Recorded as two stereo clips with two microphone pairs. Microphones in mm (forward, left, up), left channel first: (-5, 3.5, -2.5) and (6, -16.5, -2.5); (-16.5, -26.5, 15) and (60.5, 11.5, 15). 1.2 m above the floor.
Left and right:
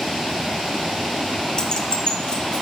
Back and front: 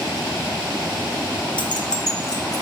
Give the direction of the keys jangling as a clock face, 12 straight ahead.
6 o'clock.